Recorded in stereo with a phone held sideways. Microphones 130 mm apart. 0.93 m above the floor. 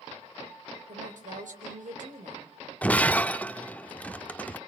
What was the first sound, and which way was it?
A woman speaking, 80° right.